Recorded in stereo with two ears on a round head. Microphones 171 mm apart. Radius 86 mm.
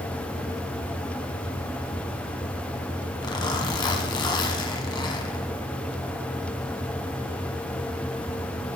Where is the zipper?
25° left (ahead or behind), 1.5 m.